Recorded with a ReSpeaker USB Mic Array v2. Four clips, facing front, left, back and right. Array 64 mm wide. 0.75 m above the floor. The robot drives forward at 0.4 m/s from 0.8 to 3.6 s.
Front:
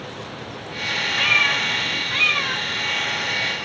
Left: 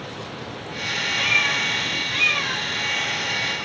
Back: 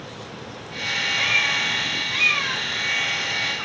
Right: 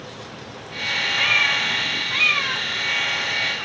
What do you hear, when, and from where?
1.2 s a cat meowing: 15° right, 0.9 m; by 3.7 s 160° right, 0.7 m